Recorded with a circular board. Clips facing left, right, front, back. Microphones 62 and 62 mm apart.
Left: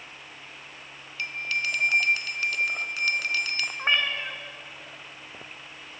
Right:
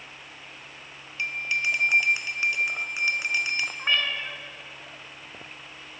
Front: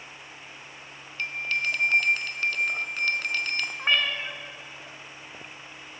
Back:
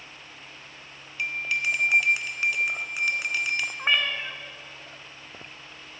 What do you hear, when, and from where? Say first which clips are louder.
1.2 s a bell: right 2 dB, back 1 dB; 125° right, 0.6 m
3.8 s a cat meowing: left 3 dB, even; 115° left, 0.8 m